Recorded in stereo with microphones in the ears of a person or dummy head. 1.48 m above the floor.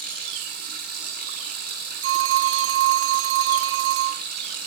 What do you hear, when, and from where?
0.0 s running water: 50° right (ahead or behind), 7.5 m
2.0 s a phone ringing: 55° right (ahead or behind), 0.7 m